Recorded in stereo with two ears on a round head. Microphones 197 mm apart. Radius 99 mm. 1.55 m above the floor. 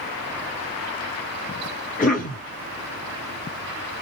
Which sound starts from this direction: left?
A cough, at 2.0 s.